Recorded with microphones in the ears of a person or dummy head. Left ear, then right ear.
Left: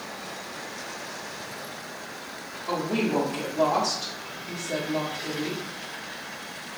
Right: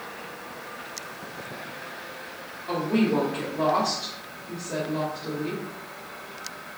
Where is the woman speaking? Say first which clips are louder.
Right 1 dB; 75° left (ahead or behind), 0.9 m.